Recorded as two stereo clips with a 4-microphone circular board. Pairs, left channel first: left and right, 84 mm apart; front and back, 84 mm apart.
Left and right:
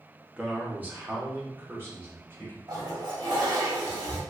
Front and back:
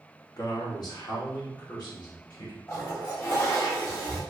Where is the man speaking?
15° right, 0.8 m; by 2.6 s 35° right, 2.0 m.